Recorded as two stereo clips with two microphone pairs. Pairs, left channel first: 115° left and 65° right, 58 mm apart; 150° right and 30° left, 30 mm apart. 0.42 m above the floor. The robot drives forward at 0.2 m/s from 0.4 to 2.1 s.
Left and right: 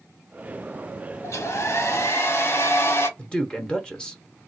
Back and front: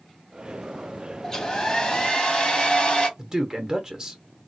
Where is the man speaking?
75° left, 0.8 m.